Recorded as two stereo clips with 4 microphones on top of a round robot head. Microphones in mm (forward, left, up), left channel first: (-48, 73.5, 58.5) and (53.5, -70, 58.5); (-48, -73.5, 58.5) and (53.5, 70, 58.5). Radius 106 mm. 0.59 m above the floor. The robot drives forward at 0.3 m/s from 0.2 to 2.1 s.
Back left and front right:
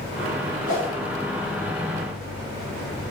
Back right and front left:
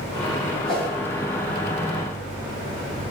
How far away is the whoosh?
About 1.9 m.